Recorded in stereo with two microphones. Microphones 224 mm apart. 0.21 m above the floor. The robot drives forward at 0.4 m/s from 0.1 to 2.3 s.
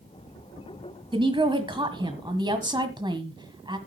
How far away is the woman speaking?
About 1.5 m.